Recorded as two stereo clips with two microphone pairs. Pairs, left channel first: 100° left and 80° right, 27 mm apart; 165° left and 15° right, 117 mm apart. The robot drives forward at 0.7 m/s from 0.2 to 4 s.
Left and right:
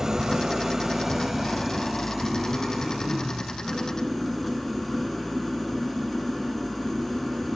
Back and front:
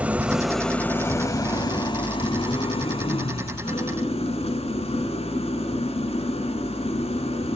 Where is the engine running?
65° right, 1.0 m; by 7.6 s 175° right, 2.5 m.